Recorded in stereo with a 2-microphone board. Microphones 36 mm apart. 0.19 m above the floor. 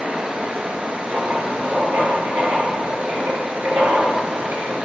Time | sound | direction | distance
0.0 | running water | 30° right (ahead or behind) | 1.6 m
1.1 | writing | 65° right (ahead or behind) | 3.5 m